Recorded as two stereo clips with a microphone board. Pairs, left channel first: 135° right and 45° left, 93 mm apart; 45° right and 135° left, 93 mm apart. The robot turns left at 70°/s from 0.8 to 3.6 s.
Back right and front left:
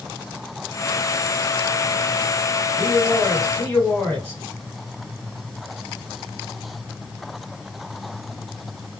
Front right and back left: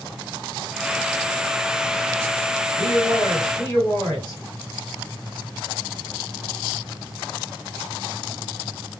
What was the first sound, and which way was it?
A man speaking, 15° right.